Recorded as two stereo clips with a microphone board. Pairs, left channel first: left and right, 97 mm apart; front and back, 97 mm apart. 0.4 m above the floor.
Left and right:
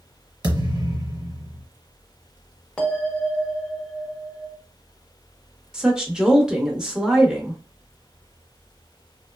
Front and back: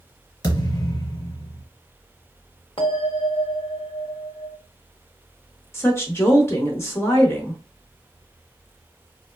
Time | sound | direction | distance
0.4 | a thud | 50° right | 1.3 m
2.8 | a bell | 10° left | 0.9 m
5.7 | a woman speaking | 20° right | 0.8 m